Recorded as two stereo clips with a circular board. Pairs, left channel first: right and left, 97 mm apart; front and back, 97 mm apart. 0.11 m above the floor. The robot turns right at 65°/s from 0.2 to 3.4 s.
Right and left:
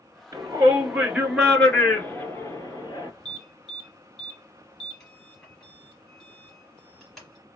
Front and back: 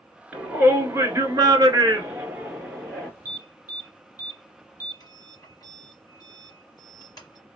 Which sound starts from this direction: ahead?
An alarm, at 3.2 s.